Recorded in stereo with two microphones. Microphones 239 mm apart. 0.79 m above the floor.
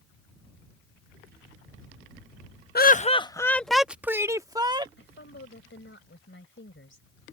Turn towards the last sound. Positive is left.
turn(degrees=55)  # may be behind; listen again after turning